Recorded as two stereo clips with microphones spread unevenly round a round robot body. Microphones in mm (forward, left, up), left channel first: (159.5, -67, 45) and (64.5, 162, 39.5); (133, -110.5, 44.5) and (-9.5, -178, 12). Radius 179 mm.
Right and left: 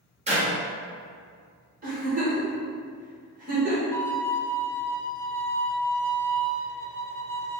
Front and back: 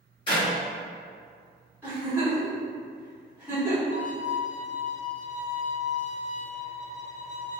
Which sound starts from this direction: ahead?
A violin, at 3.9 s.